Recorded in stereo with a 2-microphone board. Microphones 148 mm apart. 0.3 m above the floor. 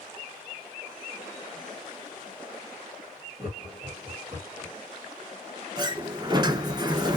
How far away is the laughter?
About 1.7 m.